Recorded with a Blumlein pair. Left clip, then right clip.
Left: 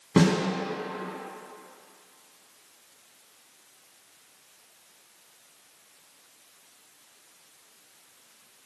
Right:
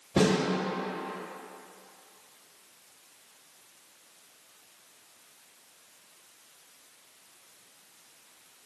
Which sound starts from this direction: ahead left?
A snare drum, at 0.2 s.